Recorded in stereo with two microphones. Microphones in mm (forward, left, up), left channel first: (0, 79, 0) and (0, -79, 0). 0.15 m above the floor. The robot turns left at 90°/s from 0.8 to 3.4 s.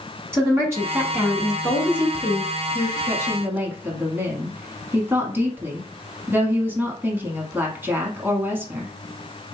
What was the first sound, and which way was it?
A woman speaking, 15° right (ahead or behind).